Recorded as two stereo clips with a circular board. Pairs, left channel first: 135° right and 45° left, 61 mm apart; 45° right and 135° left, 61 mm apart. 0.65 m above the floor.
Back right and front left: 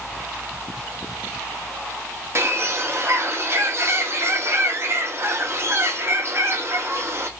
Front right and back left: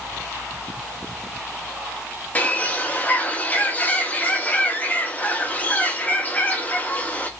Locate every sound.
2.4 s a bird: 15° left, 0.7 m